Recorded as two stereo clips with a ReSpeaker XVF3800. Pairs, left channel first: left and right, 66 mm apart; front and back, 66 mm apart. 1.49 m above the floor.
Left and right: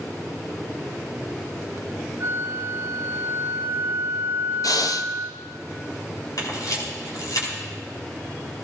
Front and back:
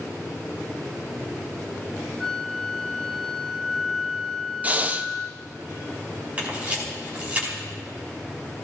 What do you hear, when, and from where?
2.2 s a flute: 80° right, 0.9 m
4.6 s breathing: 115° left, 0.6 m
6.4 s a camera shutter: 110° left, 4.5 m